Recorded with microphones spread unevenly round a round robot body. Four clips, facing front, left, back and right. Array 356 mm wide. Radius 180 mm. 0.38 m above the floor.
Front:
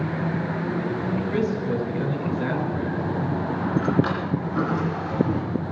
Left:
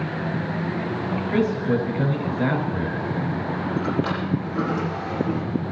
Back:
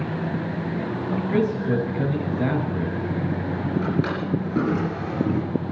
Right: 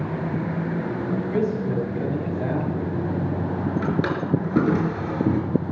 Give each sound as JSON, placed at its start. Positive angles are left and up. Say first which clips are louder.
{"t": 1.3, "sound": "a man speaking", "louder": "left 4 dB, back 4 dB", "azimuth_deg": 145, "distance_m": 6.0}
{"t": 3.8, "sound": "a drawer", "louder": "even, front 2 dB", "azimuth_deg": -100, "distance_m": 4.5}